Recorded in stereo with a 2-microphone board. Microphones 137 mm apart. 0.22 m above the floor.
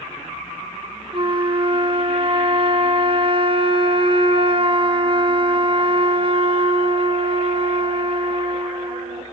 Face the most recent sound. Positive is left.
turn(degrees=-40)  # may be behind; listen again after turning